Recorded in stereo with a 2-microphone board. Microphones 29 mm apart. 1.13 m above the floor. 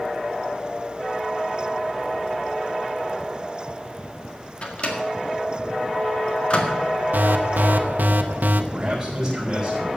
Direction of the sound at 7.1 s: 80° right.